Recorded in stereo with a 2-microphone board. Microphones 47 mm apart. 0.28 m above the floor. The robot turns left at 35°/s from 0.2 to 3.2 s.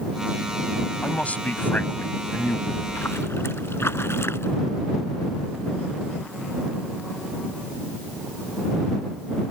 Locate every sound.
1.0 s a man speaking: 140° left; by 2.6 s 85° left
2.7 s a splash: 80° left; by 4.6 s 75° left (ahead or behind)